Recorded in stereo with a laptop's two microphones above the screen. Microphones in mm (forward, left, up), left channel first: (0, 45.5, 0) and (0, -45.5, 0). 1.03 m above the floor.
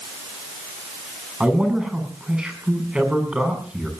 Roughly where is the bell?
I don't hear a bell.